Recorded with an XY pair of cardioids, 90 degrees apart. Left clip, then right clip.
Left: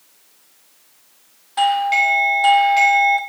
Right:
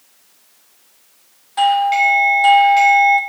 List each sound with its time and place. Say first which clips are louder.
1.6 s a doorbell: right 2 dB; 10° left, 1.0 m